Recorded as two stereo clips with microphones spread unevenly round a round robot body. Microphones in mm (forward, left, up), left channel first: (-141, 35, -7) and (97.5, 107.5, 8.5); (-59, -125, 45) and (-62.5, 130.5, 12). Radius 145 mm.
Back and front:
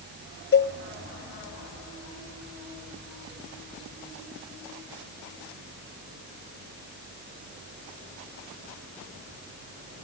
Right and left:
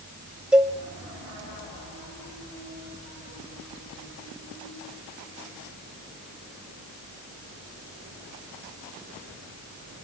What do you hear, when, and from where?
0.5 s a cowbell: 170° left, 1.2 m